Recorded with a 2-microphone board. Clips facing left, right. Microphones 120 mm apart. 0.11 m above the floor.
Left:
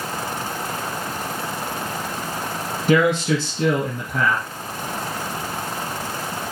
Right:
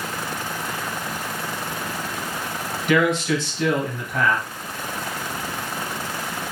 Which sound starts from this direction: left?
A man speaking, at 2.9 s.